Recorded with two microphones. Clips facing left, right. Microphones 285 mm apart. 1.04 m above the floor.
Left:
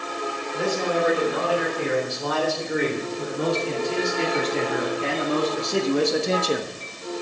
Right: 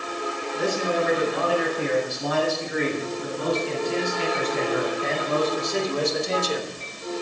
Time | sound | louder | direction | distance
0.5 | a man speaking | left 1 dB | 85° left | 5 m